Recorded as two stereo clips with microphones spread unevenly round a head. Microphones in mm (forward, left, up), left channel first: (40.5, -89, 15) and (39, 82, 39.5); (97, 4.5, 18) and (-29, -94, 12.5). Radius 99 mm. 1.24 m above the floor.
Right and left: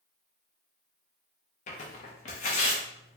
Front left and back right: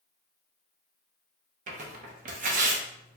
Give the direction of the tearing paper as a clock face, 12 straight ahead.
5 o'clock.